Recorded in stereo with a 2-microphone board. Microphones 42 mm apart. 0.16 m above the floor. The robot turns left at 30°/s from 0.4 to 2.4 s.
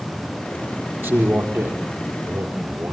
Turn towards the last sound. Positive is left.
turn(degrees=-115)